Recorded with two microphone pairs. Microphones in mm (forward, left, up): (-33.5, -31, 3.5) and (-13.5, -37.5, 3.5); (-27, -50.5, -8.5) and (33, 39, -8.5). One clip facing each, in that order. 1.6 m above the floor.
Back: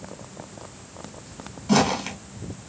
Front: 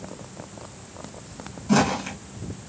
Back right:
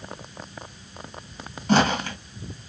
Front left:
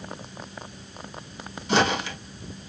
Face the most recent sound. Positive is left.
turn(degrees=-150)